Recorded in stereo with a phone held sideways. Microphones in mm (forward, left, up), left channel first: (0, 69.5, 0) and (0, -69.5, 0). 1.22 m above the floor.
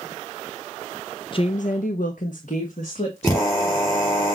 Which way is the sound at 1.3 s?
40° left (ahead or behind).